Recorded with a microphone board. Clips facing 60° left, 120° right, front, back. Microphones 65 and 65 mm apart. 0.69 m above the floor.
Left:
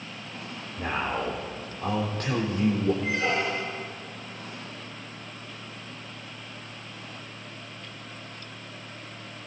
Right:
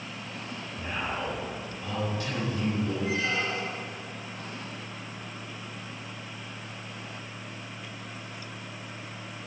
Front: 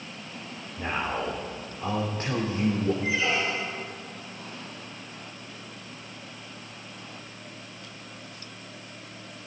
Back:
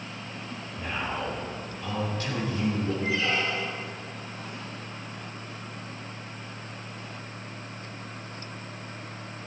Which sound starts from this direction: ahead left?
A man speaking, at 0.8 s.